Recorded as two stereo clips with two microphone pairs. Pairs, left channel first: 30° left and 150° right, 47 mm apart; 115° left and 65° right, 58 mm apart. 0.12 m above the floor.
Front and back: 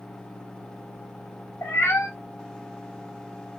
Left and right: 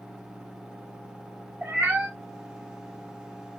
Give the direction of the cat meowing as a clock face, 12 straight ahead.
12 o'clock.